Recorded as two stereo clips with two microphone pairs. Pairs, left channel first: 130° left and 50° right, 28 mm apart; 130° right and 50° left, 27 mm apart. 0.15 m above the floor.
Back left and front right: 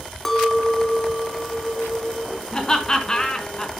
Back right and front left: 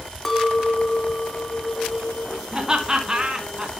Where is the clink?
175° left, 1.1 m.